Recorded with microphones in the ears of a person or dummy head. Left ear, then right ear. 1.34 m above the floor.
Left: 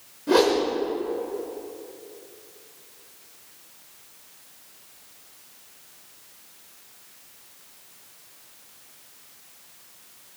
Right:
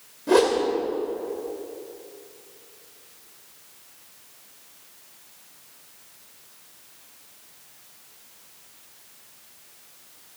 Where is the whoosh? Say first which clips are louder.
Even; 15° right (ahead or behind), 2.0 m.